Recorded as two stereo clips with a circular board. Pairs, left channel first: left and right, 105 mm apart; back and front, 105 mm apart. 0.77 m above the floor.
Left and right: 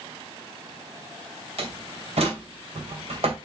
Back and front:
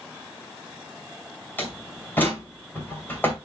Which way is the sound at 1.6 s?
110° right.